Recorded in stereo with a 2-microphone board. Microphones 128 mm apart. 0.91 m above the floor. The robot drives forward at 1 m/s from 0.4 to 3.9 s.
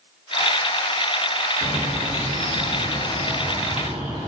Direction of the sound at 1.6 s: 50° right (ahead or behind).